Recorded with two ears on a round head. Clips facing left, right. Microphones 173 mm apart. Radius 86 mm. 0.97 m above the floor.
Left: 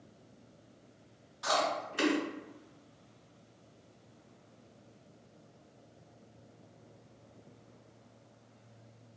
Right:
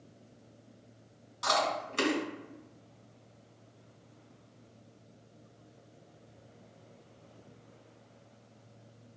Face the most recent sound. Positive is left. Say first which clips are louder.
# right 1 dB
turn(degrees=-60)  # may be behind; listen again after turning